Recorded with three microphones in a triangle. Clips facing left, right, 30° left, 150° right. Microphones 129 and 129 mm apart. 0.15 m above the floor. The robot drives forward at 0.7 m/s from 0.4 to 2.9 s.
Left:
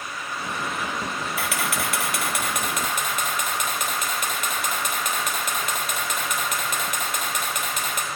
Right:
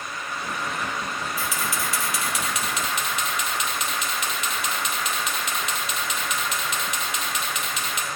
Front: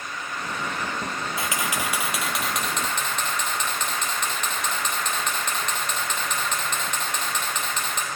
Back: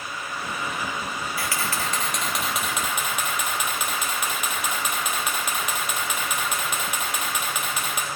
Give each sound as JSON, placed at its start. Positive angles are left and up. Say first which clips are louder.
{"t": 1.4, "sound": "a camera shutter", "louder": "left 3 dB, front 1 dB", "azimuth_deg": 95, "distance_m": 1.5}